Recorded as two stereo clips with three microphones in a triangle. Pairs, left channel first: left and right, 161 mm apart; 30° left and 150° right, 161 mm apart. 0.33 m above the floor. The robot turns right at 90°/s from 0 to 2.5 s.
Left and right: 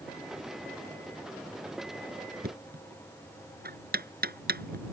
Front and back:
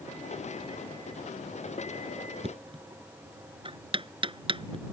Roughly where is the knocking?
Right.